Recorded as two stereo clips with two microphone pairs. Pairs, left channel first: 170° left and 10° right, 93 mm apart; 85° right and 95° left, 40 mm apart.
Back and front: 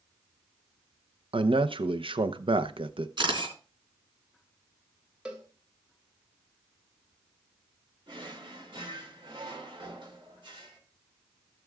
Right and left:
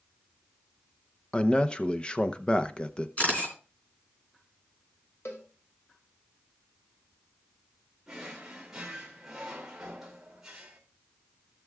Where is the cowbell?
85° right, 2 m.